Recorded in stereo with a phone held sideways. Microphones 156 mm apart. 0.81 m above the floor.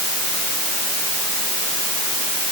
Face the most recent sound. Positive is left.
No sound to turn to.